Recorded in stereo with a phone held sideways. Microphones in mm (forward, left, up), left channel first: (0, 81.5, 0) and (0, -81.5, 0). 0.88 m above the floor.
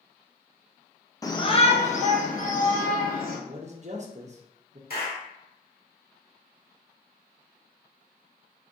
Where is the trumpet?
No trumpet in this recording.